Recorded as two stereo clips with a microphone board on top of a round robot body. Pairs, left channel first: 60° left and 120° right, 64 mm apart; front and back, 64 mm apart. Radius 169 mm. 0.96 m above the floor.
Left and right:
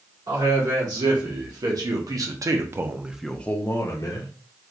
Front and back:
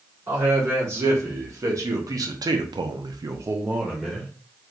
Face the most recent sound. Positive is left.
turn(degrees=90)